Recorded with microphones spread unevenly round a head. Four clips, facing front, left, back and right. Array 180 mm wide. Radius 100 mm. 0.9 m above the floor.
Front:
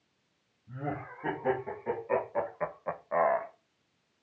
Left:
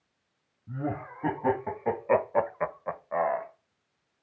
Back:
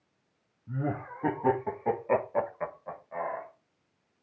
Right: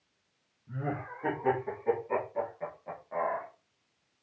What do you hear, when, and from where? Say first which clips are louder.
0.7 s laughter: left 3 dB, back 4 dB; 160° left, 1.8 m; by 3.5 s 15° left, 1.1 m